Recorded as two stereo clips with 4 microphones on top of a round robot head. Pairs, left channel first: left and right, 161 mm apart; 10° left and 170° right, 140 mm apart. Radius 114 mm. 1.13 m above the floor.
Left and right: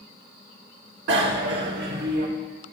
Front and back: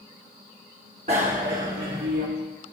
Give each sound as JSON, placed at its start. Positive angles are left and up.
{"t": 1.1, "sound": "a bicycle bell", "azimuth_deg": -110, "distance_m": 2.0}